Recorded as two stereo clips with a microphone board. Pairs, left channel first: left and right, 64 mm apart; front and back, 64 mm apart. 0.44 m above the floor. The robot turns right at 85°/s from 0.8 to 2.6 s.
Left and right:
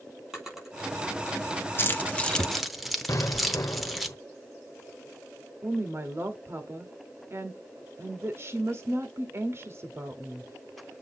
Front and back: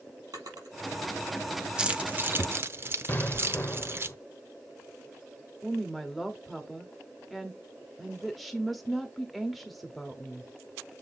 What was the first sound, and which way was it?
A drawer, straight behind.